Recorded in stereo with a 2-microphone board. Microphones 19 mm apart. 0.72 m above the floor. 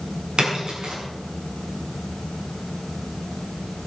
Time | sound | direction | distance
0.4 | a splash | 65° right (ahead or behind) | 8 m